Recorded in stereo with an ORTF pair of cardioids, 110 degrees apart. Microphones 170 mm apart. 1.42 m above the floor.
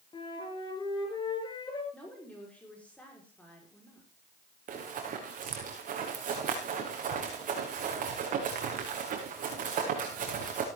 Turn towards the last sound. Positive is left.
turn(degrees=-55)